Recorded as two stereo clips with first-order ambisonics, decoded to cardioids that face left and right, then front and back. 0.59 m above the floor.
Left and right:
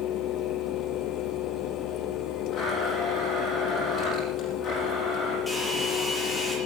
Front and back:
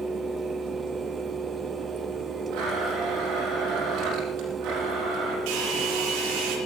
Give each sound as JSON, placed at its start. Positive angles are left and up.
{"t": 2.5, "sound": "a blender", "azimuth_deg": 145, "distance_m": 5.5}
{"t": 5.5, "sound": "a hair dryer", "azimuth_deg": 170, "distance_m": 6.0}